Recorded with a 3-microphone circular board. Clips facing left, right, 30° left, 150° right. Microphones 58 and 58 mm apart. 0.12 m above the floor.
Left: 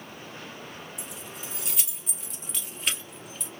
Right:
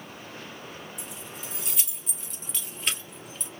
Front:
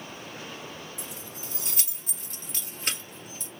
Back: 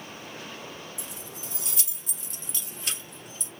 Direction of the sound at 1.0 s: Straight ahead.